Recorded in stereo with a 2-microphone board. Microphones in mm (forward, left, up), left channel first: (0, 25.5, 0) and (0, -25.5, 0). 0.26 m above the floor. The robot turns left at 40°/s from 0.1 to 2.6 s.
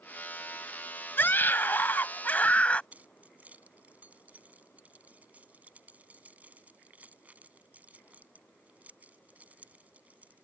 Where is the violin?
I don't hear a violin.